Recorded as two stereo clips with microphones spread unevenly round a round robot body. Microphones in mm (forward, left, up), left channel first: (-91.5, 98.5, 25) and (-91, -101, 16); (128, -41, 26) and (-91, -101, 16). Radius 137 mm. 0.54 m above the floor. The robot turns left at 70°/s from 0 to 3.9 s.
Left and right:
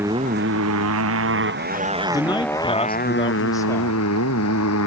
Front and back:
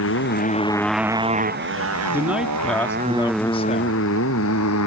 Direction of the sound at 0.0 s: 5° right.